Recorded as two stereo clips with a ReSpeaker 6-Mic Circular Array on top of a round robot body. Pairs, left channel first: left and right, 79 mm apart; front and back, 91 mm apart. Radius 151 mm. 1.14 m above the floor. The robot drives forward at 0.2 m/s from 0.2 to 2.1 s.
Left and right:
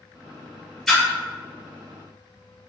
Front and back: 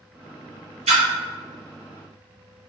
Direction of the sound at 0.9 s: 175° left.